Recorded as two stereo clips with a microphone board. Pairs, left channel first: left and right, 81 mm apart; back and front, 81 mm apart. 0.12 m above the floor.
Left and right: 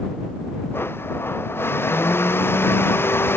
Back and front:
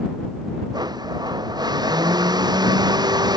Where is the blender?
30° left.